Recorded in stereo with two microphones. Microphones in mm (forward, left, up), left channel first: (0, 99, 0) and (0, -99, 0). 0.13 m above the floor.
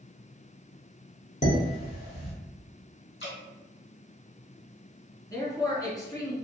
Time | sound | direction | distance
1.4 | dishes clattering | 40° left (ahead or behind) | 1.1 m
3.2 | dripping | 65° left (ahead or behind) | 1.8 m
5.3 | a man speaking | 20° left (ahead or behind) | 1.1 m